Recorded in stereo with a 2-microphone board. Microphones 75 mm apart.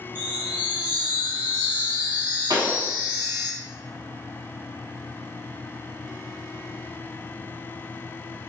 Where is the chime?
25° right (ahead or behind), 1.9 m.